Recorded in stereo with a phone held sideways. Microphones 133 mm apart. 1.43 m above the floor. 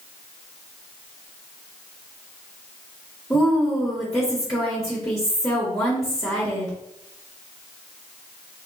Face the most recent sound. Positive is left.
turn(degrees=20)  # may be behind; listen again after turning